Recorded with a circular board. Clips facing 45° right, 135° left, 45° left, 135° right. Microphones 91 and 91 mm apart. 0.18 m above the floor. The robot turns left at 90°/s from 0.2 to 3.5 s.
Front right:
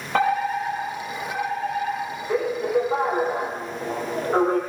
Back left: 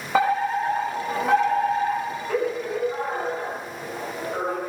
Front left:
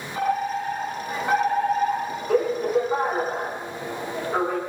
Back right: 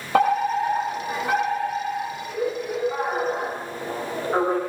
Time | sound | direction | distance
0.1 | a fire alarm | 140° right | 8 m